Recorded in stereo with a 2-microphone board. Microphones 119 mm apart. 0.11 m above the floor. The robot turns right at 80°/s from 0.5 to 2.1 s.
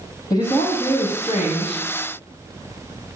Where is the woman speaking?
35° left, 3.5 m; by 1.9 s 145° left, 3.5 m.